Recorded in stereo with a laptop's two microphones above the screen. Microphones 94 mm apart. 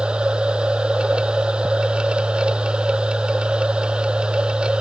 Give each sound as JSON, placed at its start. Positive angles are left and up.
{"t": 0.0, "sound": "a machine running", "side_deg": -10}